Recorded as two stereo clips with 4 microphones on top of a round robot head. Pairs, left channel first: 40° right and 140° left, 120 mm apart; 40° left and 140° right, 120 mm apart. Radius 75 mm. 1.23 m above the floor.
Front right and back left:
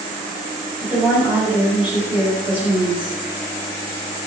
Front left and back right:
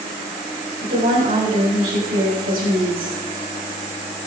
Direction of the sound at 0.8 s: 145° right.